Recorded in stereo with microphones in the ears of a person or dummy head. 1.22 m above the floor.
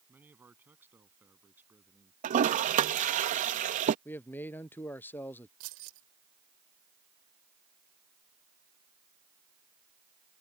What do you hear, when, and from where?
0.1 s a man speaking: 10° right (ahead or behind); by 2.1 s 5° right (ahead or behind)
2.2 s a toilet flushing: 40° right (ahead or behind)
4.0 s a man speaking: 15° left (ahead or behind)
5.6 s keys jangling: 80° right